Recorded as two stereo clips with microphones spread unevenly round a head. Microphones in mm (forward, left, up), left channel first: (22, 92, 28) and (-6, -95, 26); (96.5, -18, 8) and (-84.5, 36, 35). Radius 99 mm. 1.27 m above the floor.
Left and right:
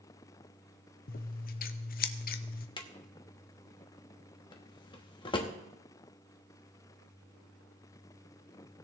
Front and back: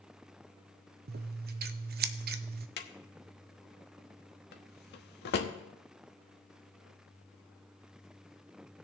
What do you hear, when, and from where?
1.1 s scissors: 120° left, 0.7 m
2.8 s a drawer: 20° left, 1.0 m